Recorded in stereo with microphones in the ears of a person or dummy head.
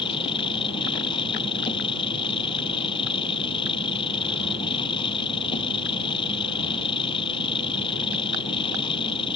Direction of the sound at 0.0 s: 30° left (ahead or behind).